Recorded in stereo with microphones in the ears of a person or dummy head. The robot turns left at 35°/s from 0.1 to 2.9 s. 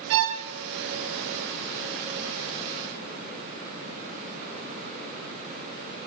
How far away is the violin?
About 1.1 m.